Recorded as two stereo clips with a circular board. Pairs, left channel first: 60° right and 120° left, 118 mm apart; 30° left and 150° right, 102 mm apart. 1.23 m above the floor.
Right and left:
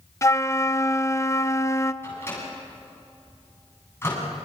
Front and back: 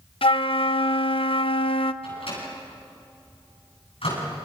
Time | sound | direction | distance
0.2 | a flute | 5° left | 0.7 m
2.0 | a microwave | 10° left | 8.5 m